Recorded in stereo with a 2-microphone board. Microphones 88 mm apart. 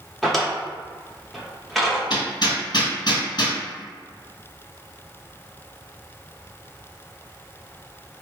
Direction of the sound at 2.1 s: 55° left (ahead or behind).